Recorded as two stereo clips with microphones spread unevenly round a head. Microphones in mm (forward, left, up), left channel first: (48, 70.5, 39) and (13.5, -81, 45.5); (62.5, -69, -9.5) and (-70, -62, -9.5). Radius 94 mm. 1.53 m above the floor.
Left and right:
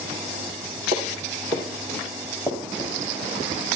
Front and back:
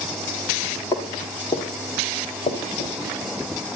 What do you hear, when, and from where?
0.9 s footsteps: 50° right, 2 m; by 2.9 s 10° right, 2.5 m